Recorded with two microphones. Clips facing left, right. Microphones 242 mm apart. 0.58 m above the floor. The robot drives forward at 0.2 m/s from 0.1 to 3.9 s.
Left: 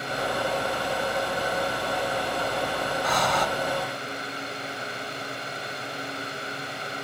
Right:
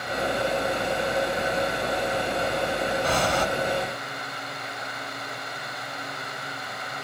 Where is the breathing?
30° right (ahead or behind), 0.9 m.